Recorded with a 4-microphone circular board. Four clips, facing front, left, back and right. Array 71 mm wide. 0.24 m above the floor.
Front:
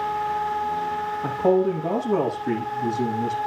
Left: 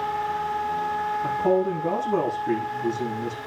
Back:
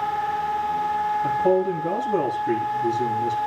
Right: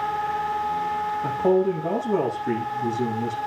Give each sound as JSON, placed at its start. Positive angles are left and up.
{"t": 1.2, "sound": "a man speaking", "azimuth_deg": -25, "distance_m": 9.0}